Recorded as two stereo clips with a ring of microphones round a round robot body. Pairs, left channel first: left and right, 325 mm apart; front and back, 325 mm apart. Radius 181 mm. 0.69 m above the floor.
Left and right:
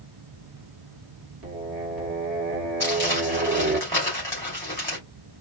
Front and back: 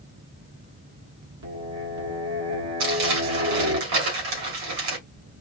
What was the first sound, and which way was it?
Singing, 150° right.